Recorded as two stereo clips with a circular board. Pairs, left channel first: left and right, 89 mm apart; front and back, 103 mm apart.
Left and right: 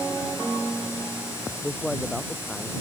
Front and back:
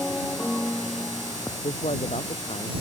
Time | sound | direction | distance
1.6 | a man speaking | 5° left | ?